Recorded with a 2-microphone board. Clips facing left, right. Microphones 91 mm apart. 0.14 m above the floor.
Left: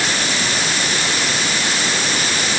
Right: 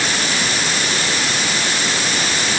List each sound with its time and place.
Only background noise.